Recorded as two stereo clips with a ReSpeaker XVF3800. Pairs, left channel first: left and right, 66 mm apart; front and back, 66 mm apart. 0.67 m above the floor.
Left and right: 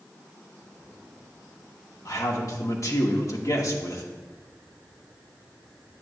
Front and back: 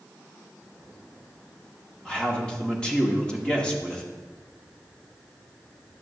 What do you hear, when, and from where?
2.0 s a man speaking: 75° left, 1.1 m